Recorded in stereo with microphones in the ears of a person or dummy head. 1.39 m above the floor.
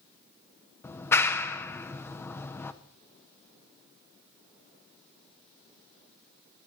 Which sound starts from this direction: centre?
A clap, at 0.8 s.